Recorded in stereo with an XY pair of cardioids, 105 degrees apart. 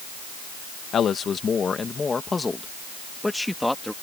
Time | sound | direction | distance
0.9 | a man speaking | 55° left | ?